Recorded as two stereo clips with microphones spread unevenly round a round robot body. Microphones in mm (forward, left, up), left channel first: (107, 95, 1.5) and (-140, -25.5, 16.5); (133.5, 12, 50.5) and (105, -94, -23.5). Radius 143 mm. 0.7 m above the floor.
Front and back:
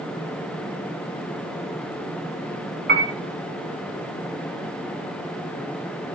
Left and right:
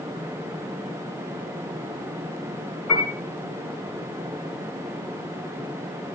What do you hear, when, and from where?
2.9 s a piano: 155° left, 3.5 m